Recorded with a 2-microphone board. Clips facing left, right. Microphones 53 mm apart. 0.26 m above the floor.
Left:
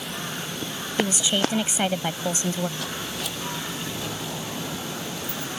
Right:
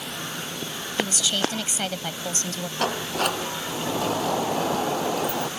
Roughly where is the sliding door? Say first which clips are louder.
Right 7 dB; right.